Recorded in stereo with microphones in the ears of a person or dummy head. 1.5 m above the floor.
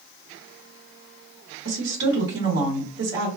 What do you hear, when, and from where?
1.6 s a woman speaking: 65° right (ahead or behind), 1.4 m